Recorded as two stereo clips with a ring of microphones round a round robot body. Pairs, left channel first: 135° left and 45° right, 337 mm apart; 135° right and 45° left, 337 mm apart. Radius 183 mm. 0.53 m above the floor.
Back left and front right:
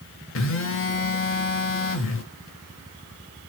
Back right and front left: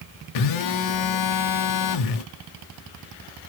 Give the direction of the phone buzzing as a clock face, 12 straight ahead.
6 o'clock.